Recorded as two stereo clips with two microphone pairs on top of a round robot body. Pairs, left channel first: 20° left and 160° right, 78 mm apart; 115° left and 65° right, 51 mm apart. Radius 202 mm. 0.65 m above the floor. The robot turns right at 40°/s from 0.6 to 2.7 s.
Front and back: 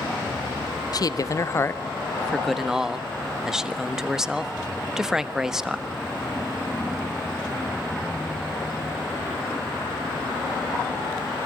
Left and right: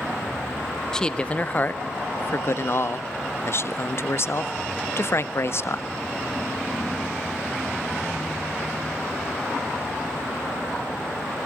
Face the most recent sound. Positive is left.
turn(degrees=115)